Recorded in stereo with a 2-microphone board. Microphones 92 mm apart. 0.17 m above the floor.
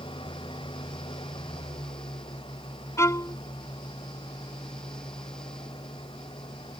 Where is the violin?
30° left (ahead or behind).